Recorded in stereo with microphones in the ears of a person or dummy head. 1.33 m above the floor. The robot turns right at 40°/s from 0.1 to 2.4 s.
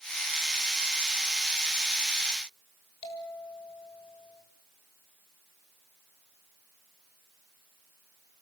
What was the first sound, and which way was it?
A bell, 25° left (ahead or behind).